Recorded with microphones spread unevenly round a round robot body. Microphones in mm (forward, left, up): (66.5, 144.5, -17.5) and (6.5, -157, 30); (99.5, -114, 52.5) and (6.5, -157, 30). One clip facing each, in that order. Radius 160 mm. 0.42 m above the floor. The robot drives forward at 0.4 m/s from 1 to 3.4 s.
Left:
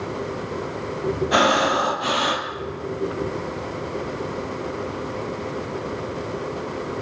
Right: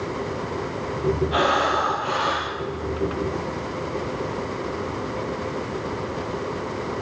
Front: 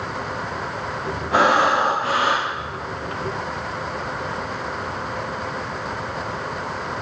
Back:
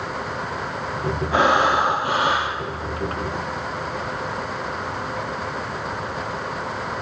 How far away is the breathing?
About 2 m.